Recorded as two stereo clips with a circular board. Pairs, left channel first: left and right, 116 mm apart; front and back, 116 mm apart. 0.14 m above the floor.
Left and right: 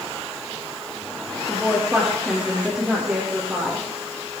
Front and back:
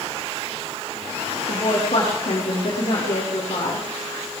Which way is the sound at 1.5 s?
5° right.